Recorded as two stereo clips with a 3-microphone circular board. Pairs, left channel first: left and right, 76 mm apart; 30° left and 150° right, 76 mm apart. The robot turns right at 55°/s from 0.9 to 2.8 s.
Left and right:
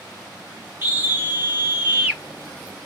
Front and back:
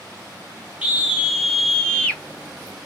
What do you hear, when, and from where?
0.8 s a scream: 95° right, 1.2 m; by 2.2 s 25° right, 1.2 m